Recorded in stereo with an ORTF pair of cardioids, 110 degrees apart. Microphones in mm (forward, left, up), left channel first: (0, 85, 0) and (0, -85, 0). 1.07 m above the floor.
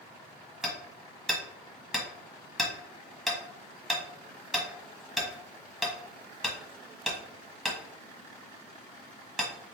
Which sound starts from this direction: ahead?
Hammering, at 0.6 s.